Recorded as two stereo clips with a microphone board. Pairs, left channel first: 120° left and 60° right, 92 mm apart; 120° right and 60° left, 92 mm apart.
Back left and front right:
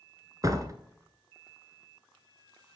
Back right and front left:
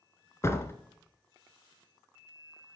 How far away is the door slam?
About 1.4 m.